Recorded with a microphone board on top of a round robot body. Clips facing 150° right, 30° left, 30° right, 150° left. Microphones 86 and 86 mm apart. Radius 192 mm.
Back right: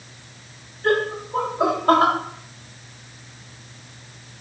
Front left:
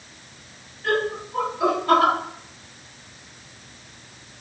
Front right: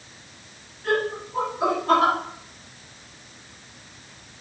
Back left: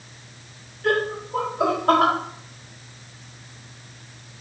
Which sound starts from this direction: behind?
Laughter, at 0.8 s.